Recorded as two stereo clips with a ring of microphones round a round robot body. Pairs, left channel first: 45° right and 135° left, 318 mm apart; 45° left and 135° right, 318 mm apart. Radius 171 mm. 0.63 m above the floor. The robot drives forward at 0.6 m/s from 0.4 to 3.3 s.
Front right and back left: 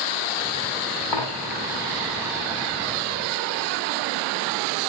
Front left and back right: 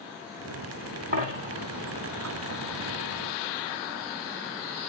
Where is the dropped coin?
70° right, 3 m; by 1.6 s 75° right, 3 m.